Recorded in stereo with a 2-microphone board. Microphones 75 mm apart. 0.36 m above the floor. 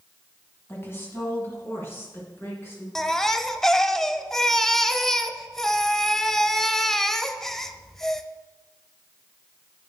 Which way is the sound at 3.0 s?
5° left (ahead or behind).